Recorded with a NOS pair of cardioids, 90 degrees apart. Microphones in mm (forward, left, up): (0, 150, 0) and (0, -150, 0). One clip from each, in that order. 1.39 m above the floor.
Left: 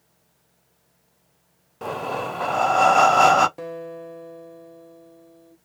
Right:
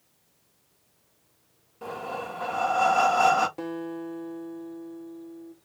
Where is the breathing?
40° left, 0.6 m.